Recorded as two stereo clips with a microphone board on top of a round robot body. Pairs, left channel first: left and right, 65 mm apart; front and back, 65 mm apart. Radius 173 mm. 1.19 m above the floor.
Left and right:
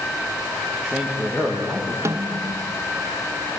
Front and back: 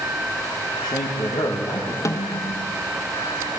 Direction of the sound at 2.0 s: 45° right.